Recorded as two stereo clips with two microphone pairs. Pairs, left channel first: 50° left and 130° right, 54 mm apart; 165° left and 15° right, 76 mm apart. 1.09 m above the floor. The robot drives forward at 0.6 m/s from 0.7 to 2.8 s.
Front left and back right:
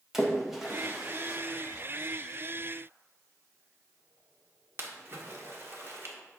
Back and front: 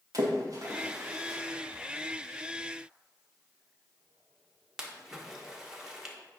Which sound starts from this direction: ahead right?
A splash, at 0.1 s.